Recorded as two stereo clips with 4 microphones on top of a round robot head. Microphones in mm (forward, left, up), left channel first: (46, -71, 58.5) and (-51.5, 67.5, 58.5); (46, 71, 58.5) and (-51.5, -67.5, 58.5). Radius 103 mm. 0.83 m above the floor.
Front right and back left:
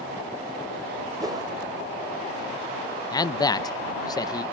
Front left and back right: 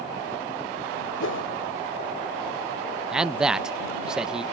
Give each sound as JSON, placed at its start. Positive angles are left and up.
{"t": 1.2, "sound": "a whoosh", "azimuth_deg": 55}
{"t": 3.1, "sound": "a man speaking", "azimuth_deg": -45}